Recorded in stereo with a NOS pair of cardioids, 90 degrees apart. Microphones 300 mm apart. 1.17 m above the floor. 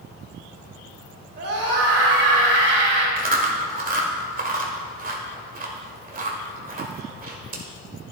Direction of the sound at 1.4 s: 50° right.